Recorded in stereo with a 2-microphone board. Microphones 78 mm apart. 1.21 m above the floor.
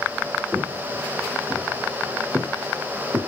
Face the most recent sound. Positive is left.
turn(degrees=-40)  # may be behind; listen again after turning